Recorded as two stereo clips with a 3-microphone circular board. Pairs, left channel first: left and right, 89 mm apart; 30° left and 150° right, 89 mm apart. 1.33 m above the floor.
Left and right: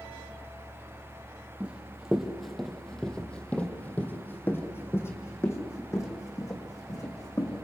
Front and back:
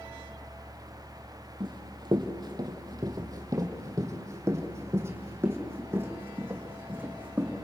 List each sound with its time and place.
1.6 s running footsteps: 165° right, 2.5 m; by 7.7 s 140° left, 4.5 m